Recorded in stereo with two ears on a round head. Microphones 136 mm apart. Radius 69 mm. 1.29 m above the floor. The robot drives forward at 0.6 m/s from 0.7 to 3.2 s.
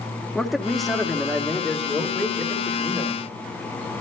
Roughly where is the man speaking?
Centre.